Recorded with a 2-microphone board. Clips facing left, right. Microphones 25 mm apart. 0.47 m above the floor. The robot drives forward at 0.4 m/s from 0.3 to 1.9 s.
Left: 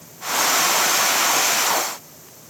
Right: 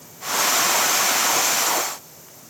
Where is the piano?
No piano in this recording.